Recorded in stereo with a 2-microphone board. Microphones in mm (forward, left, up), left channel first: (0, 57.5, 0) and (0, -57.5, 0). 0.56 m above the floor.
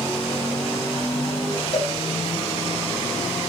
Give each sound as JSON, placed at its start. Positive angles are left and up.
{"t": 1.7, "sound": "a cowbell", "side_deg": 70, "distance_m": 7.0}